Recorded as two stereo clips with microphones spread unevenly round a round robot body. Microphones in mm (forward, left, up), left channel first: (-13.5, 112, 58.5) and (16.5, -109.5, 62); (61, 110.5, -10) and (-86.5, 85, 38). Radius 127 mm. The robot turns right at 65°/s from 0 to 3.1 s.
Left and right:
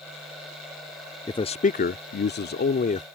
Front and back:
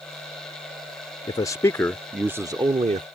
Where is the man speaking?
30° left; by 3.1 s 145° left.